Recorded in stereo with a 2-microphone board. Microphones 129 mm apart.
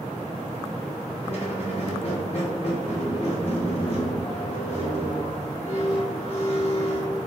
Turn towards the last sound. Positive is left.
turn(degrees=50)  # may be behind; listen again after turning